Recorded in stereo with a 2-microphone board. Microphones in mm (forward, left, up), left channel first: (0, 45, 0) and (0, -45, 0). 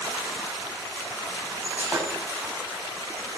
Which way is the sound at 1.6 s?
20° right (ahead or behind).